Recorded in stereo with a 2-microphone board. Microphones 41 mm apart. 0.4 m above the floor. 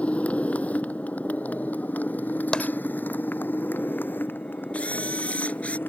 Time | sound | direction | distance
0.0 | a motorcycle | 35° left (ahead or behind) | ?
2.5 | tapping | 30° left (ahead or behind) | ?
4.7 | a camera shutter | 40° left (ahead or behind) | ?